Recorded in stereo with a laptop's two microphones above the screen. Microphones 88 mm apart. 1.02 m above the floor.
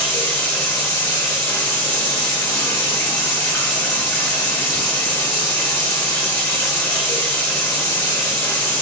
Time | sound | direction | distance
0.0 | running water | 25° left (ahead or behind) | 0.8 m